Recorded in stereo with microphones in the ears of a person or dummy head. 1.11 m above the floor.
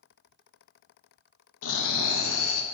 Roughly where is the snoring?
Left.